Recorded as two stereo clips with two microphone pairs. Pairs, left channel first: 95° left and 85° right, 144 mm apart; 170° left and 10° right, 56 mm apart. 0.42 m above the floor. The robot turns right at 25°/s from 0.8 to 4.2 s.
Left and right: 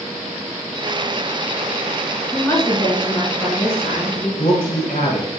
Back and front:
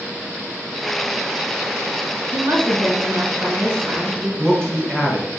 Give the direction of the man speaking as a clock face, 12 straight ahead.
9 o'clock.